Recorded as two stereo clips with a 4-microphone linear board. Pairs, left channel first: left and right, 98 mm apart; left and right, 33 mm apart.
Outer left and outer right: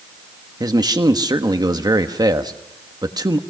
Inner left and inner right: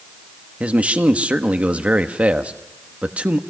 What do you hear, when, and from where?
0.6 s a man speaking: 40° right (ahead or behind), 1.2 m